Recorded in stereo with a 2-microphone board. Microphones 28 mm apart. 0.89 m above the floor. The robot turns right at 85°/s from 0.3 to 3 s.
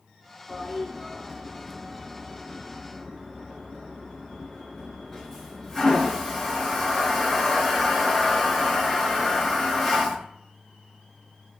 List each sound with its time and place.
0.5 s a toilet flushing: 30° left (ahead or behind), 1.7 m; by 10.2 s centre (ahead or behind), 1.7 m